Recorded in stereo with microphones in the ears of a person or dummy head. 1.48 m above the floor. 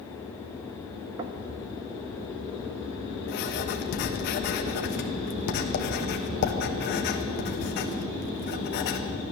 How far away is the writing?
About 1.2 m.